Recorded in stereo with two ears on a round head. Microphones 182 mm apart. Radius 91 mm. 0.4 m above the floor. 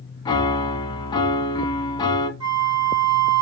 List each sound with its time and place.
0.2 s a piano: 20° left (ahead or behind), 0.6 m
2.4 s a flute: 25° right (ahead or behind), 2 m